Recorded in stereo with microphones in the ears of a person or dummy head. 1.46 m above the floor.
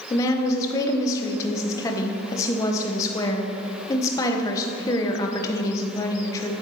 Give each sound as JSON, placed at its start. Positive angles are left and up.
{"t": 0.1, "sound": "a woman speaking", "side_deg": 20, "distance_m": 1.1}